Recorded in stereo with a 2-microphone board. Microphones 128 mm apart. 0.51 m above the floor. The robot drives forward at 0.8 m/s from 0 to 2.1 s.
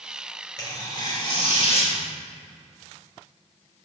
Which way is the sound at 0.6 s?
30° left (ahead or behind).